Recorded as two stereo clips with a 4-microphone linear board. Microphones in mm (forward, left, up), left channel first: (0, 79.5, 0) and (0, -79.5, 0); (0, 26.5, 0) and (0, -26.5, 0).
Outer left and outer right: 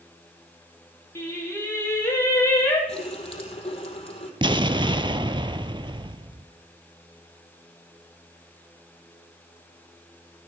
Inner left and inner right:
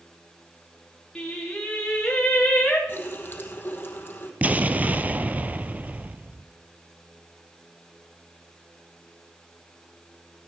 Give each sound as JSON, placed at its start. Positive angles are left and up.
{"t": 1.1, "sound": "singing", "side_deg": 20, "distance_m": 5.0}
{"t": 2.9, "sound": "a running tap", "side_deg": 40, "distance_m": 2.5}
{"t": 4.4, "sound": "an explosion", "side_deg": -30, "distance_m": 0.6}